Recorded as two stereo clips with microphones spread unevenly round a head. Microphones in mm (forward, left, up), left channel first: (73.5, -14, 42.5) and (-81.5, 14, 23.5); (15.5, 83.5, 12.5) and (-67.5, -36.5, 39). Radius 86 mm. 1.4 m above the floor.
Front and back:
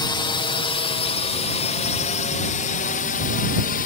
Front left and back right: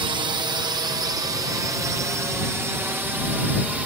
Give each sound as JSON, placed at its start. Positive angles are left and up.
{"t": 0.0, "sound": "a drone", "azimuth_deg": -65}